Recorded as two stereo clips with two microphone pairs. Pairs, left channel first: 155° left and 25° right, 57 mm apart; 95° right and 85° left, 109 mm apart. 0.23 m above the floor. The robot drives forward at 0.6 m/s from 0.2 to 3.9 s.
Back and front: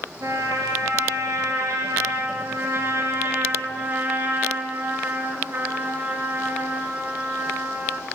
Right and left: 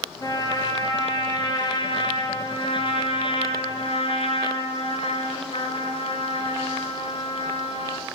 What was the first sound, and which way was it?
A trumpet, 45° right.